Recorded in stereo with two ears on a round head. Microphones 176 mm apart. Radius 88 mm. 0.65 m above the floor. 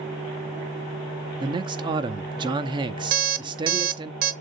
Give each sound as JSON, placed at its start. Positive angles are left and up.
{"t": 1.4, "sound": "a man speaking", "side_deg": -25, "distance_m": 0.8}
{"t": 3.1, "sound": "an alarm clock", "side_deg": -45, "distance_m": 0.7}